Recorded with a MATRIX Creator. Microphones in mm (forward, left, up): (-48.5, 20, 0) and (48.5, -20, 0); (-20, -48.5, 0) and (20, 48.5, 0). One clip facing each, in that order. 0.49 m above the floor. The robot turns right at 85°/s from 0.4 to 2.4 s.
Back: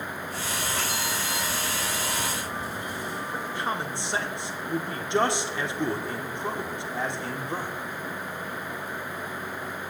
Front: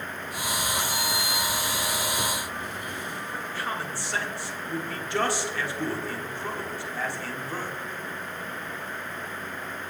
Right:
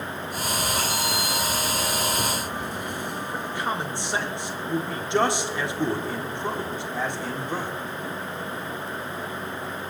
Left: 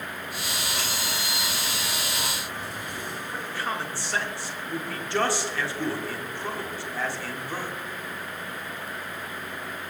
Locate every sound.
0.9 s a sliding door: 85° left, 3.5 m; by 3.7 s 150° right, 3.5 m
3.3 s a man speaking: 160° right, 1.3 m